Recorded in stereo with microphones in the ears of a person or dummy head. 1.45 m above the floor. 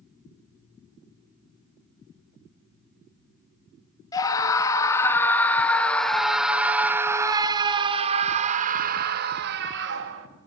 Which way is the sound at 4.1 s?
20° left (ahead or behind).